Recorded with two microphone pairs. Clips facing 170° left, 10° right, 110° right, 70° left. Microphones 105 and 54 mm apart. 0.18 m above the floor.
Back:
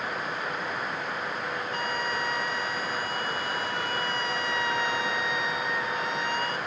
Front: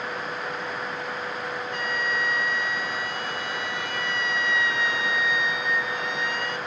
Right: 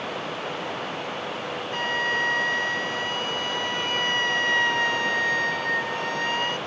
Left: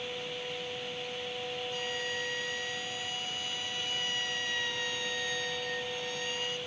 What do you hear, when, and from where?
0.0 s running water: 100° right
1.7 s a flute: 135° right